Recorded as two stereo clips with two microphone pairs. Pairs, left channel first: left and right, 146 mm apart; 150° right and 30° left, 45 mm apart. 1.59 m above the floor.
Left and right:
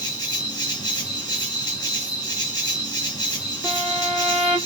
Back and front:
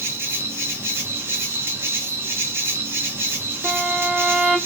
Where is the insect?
30° left, 1.6 m.